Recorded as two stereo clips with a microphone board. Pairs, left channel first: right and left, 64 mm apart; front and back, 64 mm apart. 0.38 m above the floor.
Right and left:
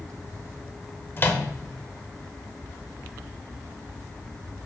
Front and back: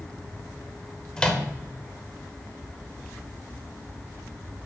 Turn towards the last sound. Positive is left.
turn(degrees=-65)